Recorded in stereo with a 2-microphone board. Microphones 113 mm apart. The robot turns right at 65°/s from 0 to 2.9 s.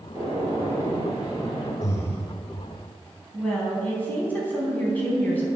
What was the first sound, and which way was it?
A gunshot, 145° right.